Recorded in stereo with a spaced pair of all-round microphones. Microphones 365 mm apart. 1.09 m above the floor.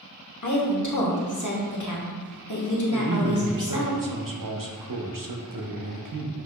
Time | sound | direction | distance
0.4 | a woman speaking | 55° left (ahead or behind) | 0.8 m
2.9 | a man speaking | 60° right (ahead or behind) | 0.7 m